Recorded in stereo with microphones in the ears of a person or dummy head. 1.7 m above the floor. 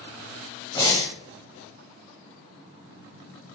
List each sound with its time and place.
0.8 s breathing: 25° left (ahead or behind), 1.0 m